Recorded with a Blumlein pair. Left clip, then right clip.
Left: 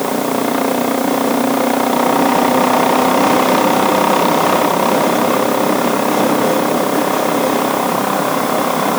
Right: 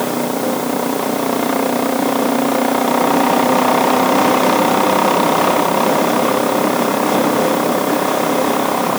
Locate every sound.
Only background noise.